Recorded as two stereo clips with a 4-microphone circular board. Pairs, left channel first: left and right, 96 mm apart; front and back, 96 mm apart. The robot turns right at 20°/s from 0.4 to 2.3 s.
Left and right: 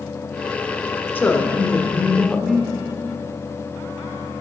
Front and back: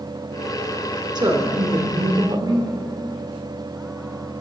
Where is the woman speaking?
155° left, 1.1 m; by 2.7 s 175° left, 1.1 m.